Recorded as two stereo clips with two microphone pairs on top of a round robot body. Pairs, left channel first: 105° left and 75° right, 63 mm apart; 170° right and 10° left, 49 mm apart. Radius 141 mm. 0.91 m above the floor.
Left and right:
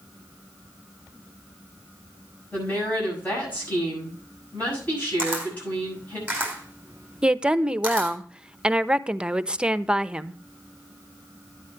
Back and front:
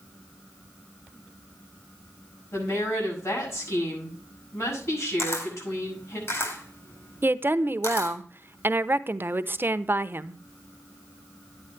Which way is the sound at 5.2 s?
145° right.